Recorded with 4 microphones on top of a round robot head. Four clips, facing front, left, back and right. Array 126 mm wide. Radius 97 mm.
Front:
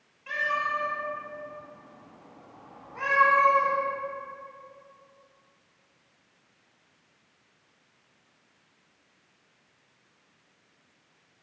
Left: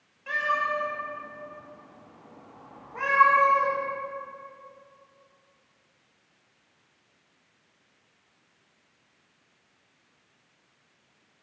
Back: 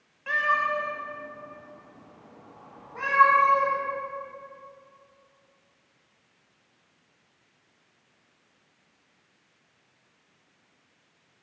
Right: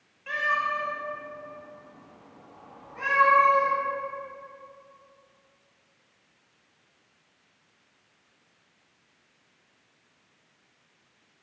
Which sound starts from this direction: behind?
A cat meowing, at 0.3 s.